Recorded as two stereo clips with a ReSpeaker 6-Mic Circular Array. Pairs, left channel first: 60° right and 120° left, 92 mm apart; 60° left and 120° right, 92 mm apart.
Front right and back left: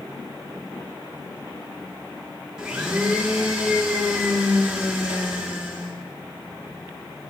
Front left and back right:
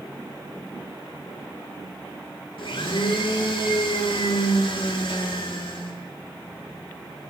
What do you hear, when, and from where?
2.6 s a blender: 35° left, 3.5 m